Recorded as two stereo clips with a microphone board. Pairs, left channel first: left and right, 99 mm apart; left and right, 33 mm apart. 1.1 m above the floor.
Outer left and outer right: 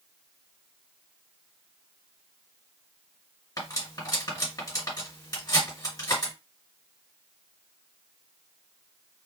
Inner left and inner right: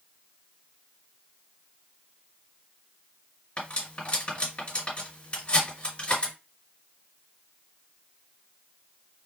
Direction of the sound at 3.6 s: 35° left (ahead or behind).